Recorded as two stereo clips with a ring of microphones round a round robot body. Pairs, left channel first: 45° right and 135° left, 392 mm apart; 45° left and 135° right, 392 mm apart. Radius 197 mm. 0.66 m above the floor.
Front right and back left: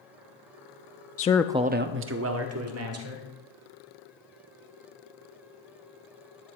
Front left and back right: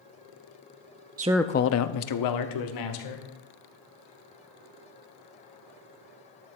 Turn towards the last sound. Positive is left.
turn(degrees=80)